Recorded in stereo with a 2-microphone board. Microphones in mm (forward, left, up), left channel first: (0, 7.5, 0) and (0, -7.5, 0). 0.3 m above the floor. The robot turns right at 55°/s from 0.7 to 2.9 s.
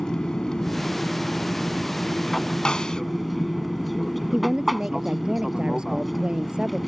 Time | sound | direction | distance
0.0 | an aircraft | 55° left | ?
2.6 | a snare drum | 70° left (ahead or behind) | ?
4.3 | a woman speaking | 75° right (ahead or behind) | ?